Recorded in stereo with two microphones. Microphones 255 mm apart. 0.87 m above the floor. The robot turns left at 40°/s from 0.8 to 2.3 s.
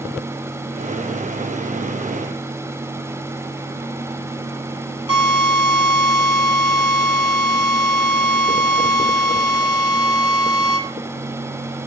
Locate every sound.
5.1 s a drill: 65° left (ahead or behind), 7.5 m